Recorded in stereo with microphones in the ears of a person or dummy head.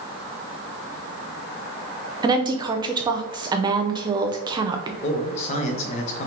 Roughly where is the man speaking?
Left.